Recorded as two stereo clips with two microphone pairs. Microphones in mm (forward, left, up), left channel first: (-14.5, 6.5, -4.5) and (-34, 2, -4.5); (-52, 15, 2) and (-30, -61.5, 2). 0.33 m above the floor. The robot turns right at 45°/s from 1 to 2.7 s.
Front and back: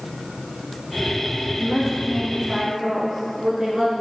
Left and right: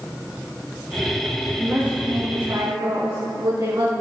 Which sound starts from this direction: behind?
A woman speaking, at 1.6 s.